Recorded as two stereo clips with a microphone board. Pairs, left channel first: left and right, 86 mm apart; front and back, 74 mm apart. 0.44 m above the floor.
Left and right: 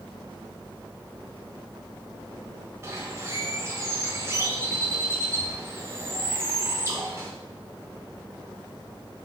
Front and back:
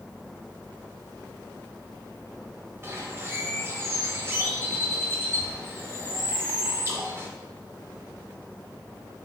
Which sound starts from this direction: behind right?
A bird, at 2.8 s.